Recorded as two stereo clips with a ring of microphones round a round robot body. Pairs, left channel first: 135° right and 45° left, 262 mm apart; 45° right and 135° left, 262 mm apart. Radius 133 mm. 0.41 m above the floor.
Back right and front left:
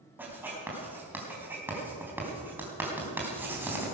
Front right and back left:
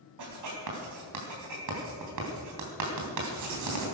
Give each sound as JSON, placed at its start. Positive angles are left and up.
{"t": 0.2, "sound": "writing", "azimuth_deg": 130, "distance_m": 3.5}